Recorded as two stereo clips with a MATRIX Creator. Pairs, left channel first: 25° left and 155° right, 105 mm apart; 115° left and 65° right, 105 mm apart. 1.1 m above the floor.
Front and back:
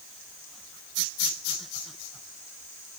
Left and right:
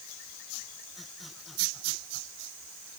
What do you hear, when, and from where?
Only background noise.